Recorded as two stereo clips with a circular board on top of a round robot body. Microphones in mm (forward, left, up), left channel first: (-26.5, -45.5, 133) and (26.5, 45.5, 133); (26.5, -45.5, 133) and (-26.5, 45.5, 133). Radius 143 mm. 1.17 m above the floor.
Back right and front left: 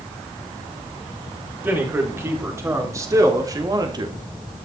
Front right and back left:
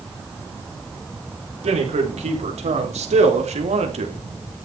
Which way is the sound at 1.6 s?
130° left.